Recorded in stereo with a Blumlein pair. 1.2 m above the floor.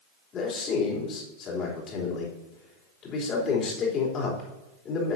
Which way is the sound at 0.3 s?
30° left.